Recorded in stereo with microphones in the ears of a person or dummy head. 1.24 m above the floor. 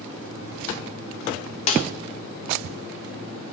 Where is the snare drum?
40° left (ahead or behind), 0.6 m.